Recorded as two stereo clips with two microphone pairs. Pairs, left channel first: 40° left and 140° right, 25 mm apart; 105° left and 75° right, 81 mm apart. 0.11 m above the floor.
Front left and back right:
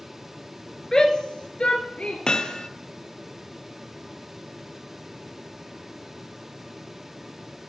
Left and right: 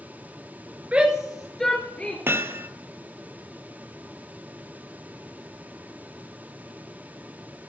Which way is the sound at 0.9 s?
15° right.